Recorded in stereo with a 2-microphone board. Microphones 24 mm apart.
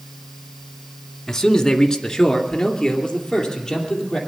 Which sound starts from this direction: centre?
A man speaking, at 1.3 s.